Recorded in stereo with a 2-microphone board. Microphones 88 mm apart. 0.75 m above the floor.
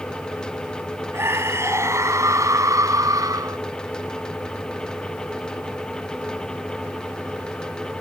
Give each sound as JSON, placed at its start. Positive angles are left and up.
{"t": 1.1, "sound": "a scream", "side_deg": -30}